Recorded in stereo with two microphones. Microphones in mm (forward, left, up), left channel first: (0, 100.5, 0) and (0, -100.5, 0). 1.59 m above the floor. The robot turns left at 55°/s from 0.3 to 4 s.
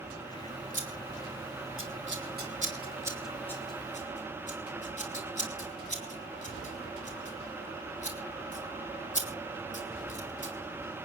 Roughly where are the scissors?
Right.